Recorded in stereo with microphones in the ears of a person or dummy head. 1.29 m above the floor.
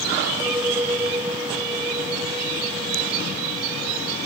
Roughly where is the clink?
Centre.